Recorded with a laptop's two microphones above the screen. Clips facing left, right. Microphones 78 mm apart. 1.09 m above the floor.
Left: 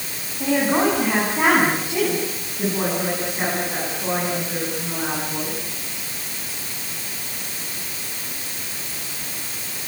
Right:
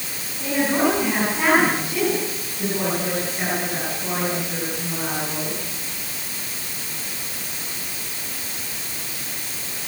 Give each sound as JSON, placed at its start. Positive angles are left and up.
{"t": 0.4, "sound": "a woman speaking", "side_deg": 35, "distance_m": 9.0}